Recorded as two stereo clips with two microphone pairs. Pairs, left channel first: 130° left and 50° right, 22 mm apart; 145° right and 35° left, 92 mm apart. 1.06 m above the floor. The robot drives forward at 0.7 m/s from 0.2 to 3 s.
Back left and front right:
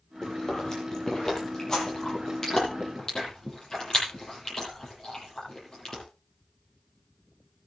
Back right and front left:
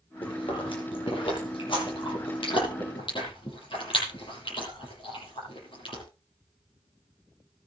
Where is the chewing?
165° right, 10 m; by 6.0 s 170° right, 11.5 m.